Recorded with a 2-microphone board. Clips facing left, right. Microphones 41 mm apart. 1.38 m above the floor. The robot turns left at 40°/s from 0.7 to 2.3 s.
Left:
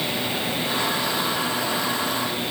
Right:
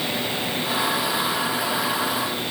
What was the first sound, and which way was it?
Only background noise.